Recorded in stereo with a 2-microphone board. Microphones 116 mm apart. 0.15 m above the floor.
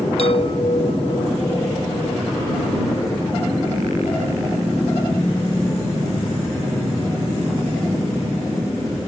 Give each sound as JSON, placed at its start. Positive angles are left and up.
{"t": 0.2, "sound": "a chime", "side_deg": 55}